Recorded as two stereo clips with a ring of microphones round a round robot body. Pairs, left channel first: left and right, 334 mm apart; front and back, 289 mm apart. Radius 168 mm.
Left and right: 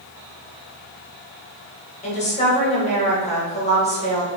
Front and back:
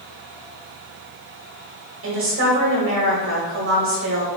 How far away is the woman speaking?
About 1.4 m.